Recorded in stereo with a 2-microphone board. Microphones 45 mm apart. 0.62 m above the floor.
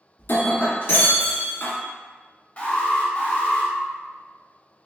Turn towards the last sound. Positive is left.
turn(degrees=30)  # may be behind; listen again after turning